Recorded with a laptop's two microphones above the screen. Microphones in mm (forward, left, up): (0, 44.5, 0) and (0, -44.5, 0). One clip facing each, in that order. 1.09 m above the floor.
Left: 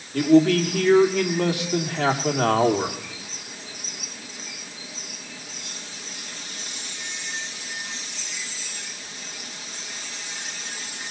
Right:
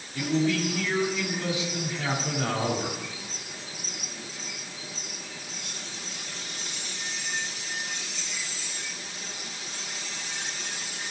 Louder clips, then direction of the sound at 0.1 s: Left 10 dB; 65° left (ahead or behind).